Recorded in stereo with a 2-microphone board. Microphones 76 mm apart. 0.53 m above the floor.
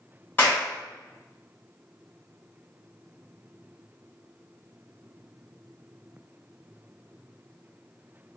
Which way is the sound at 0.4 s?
25° left (ahead or behind).